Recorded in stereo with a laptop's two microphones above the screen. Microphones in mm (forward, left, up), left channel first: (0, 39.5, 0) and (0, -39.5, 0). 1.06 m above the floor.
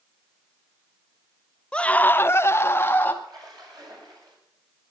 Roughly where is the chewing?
No chewing in this recording.